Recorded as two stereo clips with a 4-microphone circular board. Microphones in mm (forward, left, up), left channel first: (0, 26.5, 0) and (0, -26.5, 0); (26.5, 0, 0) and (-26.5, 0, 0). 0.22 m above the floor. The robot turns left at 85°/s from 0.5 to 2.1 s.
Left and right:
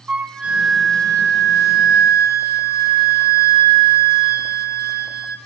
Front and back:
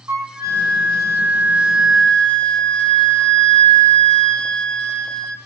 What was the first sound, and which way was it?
A flute, 160° right.